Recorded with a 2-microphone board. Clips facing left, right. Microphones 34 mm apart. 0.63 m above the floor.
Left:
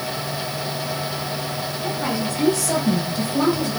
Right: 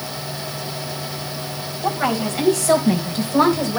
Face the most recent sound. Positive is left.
turn(degrees=-70)  # may be behind; listen again after turning